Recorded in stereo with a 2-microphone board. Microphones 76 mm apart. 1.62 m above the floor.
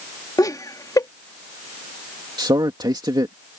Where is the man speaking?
80° right.